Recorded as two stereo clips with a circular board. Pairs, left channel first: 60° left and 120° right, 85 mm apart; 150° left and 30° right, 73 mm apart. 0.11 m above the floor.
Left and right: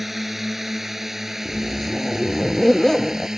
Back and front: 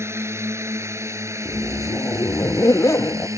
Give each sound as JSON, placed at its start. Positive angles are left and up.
{"t": 0.0, "sound": "a drone", "azimuth_deg": -30}
{"t": 1.4, "sound": "a zipper", "azimuth_deg": 145}